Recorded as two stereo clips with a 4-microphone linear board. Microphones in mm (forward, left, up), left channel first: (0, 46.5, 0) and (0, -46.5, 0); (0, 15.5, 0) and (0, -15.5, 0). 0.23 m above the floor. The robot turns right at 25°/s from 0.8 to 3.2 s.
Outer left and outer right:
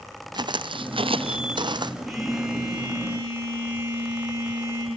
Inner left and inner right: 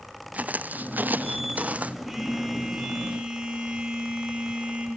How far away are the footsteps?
About 0.8 m.